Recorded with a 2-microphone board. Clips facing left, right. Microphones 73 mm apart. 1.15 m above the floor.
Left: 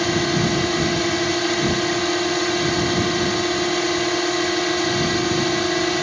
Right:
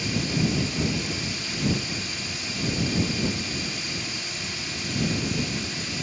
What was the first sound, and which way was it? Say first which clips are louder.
A drone: left 7 dB; 65° left (ahead or behind).